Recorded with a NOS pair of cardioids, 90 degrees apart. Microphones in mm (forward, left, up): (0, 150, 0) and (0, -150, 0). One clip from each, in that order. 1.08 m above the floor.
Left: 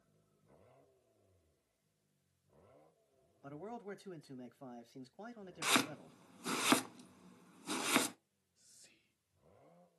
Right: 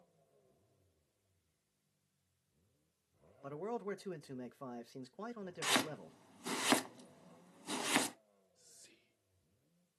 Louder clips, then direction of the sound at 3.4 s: Right 6 dB; 35° right.